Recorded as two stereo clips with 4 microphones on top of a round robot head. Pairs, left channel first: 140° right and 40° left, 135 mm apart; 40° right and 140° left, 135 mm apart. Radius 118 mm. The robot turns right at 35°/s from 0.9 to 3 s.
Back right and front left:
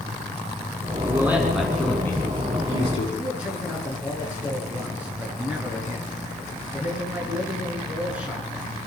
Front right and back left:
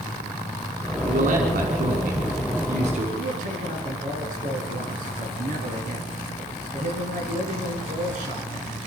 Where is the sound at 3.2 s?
120° left, 8 m.